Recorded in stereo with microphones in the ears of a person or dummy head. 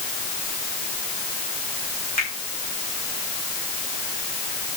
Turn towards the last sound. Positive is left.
turn(degrees=35)  # may be behind; listen again after turning